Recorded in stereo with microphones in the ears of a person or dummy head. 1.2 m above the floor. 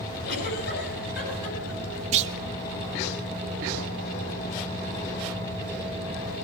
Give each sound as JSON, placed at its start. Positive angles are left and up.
{"t": 0.2, "sound": "a giggle", "side_deg": 60, "distance_m": 9.0}
{"t": 2.1, "sound": "a clunk", "side_deg": -45, "distance_m": 1.5}